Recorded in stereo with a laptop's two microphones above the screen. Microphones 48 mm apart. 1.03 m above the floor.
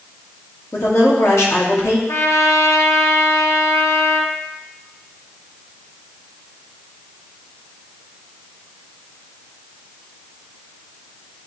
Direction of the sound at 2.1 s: 70° left (ahead or behind).